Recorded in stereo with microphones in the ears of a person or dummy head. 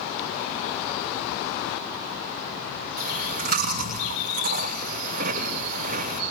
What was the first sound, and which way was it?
Chewing, 50° right (ahead or behind).